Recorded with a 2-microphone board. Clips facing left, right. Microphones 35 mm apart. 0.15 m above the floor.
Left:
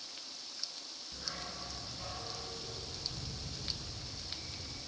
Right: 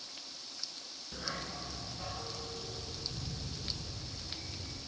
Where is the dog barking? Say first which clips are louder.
Right 4 dB; 35° right (ahead or behind), 0.6 m; by 4.8 s 5° left (ahead or behind), 3.5 m.